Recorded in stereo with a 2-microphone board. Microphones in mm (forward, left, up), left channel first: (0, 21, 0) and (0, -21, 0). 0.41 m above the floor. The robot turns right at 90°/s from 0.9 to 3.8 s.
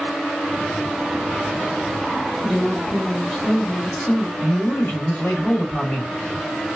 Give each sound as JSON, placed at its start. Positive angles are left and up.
{"t": 2.4, "sound": "a woman speaking", "side_deg": 0, "distance_m": 0.8}
{"t": 4.4, "sound": "a man speaking", "side_deg": 35, "distance_m": 1.2}